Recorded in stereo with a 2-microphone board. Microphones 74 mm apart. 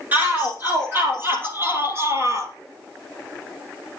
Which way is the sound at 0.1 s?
25° right (ahead or behind).